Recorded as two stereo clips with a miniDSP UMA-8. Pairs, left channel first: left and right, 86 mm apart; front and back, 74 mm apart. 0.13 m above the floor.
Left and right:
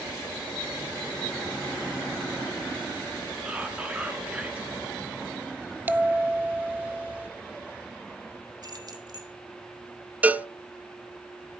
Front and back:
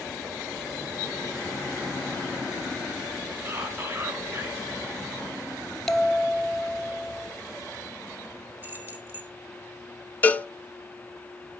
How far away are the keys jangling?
About 2 m.